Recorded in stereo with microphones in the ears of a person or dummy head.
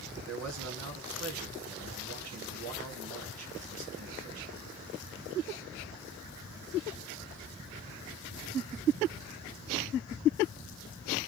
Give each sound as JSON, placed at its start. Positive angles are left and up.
{"t": 0.3, "sound": "a man speaking", "side_deg": -85, "distance_m": 1.2}